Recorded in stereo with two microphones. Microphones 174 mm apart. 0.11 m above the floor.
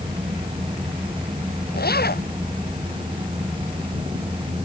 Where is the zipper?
65° left (ahead or behind).